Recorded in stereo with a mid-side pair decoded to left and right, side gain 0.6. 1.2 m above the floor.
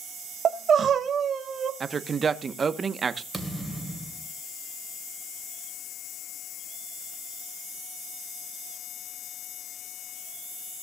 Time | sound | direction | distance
0.5 | crying | 40° right | 1.2 m
1.8 | a woman speaking | 30° right | 1.0 m
3.3 | a thud | 5° right | 2.5 m